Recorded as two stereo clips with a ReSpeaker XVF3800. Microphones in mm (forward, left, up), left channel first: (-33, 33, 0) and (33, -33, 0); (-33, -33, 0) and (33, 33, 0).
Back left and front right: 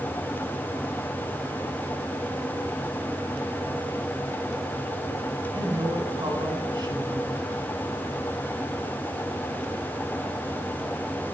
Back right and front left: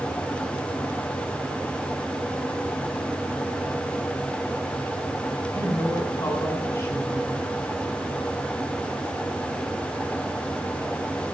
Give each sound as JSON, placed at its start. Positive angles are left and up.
{"t": 5.5, "sound": "a woman speaking", "azimuth_deg": -80, "distance_m": 3.5}